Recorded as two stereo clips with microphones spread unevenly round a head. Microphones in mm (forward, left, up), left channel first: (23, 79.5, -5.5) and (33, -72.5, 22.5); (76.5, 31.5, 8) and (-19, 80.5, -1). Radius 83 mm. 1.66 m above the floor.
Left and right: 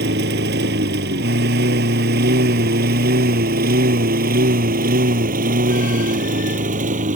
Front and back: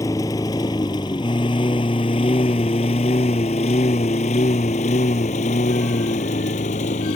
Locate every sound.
0.0 s a lawn mower: 95° right; by 7.2 s 55° right